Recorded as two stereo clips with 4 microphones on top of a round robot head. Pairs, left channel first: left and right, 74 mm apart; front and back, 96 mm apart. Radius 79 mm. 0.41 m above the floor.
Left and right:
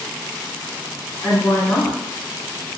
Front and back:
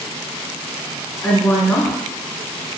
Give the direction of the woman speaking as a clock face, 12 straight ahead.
10 o'clock.